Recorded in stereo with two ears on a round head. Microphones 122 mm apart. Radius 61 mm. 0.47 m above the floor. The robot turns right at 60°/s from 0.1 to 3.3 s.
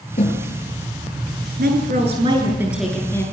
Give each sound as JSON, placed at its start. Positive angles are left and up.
{"t": 0.2, "sound": "a snare drum", "side_deg": 55, "distance_m": 9.5}
{"t": 1.6, "sound": "a woman speaking", "azimuth_deg": -75, "distance_m": 8.0}